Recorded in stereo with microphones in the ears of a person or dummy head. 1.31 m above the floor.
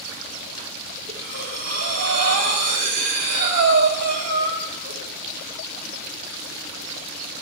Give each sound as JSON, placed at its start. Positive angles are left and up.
{"t": 1.1, "sound": "breathing", "side_deg": -40, "distance_m": 1.5}